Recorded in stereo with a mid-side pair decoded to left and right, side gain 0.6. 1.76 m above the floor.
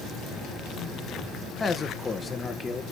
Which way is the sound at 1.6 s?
25° left.